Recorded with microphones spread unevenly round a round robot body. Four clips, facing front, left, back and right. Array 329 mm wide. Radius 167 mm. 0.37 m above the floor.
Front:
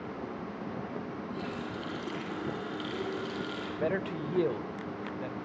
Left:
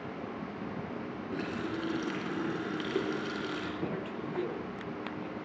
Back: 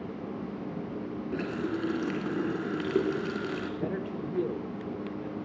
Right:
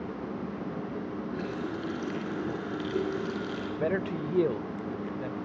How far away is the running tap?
About 2.5 m.